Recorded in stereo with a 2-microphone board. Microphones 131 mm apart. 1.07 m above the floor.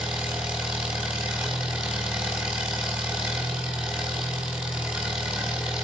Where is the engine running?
10° right (ahead or behind), 4 m.